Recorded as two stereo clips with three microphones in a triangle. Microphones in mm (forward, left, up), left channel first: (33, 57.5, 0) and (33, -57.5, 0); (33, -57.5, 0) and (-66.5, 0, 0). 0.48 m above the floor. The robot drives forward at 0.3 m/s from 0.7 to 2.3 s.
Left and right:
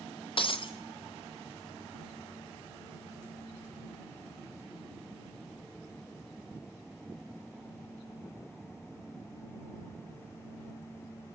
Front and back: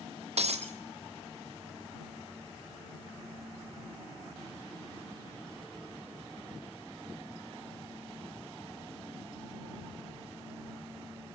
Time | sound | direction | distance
0.4 | breaking glass | 130° left | 2.5 m